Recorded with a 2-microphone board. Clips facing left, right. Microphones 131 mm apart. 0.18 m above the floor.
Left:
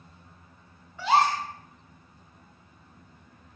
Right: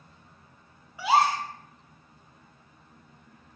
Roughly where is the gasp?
Centre.